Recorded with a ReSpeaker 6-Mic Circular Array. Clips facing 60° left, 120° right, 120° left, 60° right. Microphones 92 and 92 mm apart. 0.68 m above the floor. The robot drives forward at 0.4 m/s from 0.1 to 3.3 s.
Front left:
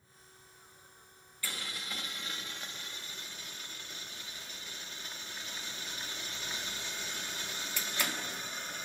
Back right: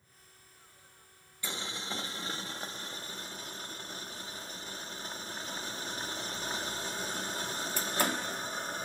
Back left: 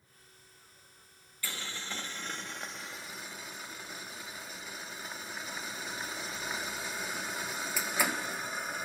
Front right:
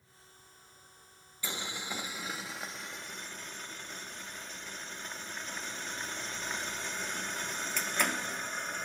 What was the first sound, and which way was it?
Boiling, 95° right.